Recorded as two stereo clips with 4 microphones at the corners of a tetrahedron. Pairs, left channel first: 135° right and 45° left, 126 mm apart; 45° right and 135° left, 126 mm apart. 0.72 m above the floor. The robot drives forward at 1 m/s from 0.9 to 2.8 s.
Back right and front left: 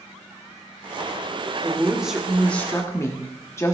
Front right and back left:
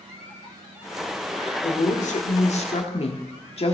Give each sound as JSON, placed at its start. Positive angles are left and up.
{"t": 1.6, "sound": "a woman speaking", "azimuth_deg": -30, "distance_m": 1.8}